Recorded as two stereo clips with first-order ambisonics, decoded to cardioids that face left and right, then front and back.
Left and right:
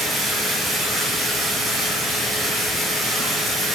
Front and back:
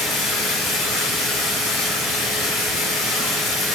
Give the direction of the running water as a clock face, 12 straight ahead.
12 o'clock.